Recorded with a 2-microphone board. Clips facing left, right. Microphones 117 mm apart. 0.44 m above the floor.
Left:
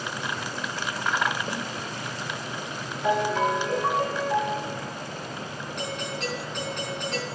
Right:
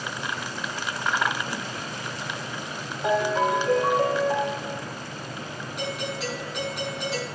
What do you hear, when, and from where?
1.5 s a snare drum: 30° left (ahead or behind), 1.4 m
3.0 s a ringtone: 35° right (ahead or behind), 4.5 m
5.8 s a doorbell: 5° right (ahead or behind), 5 m